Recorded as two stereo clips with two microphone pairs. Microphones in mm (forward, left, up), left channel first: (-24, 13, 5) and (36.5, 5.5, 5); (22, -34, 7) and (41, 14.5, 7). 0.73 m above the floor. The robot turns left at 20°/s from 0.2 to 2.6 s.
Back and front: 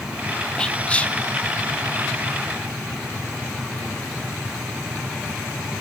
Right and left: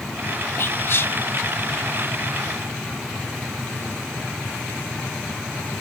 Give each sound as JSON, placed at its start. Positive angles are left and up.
{"t": 0.6, "sound": "whispering", "azimuth_deg": -120, "distance_m": 0.6}